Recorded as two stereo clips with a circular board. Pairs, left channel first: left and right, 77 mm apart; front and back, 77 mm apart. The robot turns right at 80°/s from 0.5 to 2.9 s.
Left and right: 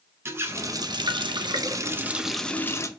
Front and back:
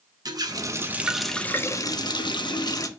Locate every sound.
0.2 s a running tap: 150° right, 0.8 m; by 2.9 s 45° left, 0.8 m